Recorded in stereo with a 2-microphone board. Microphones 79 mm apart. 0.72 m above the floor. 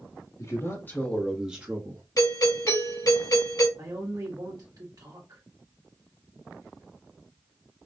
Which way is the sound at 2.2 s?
60° left (ahead or behind).